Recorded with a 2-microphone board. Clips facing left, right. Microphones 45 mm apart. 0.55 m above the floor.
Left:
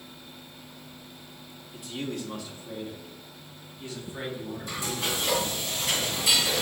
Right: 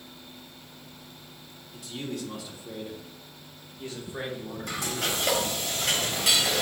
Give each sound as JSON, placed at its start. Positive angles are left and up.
{"t": 1.7, "sound": "a man speaking", "side_deg": 10, "distance_m": 1.0}
{"t": 4.7, "sound": "frying", "side_deg": -70, "distance_m": 3.0}